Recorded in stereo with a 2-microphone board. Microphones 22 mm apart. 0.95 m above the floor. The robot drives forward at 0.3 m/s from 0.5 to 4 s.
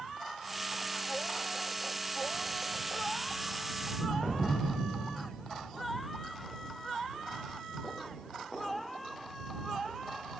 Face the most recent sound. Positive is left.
turn(degrees=-5)  # may be behind; listen again after turning